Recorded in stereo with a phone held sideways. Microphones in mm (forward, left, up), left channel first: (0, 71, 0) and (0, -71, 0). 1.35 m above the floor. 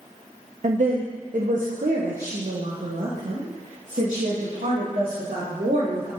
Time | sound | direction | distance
0.6 | a woman speaking | 55° right (ahead or behind) | 0.5 m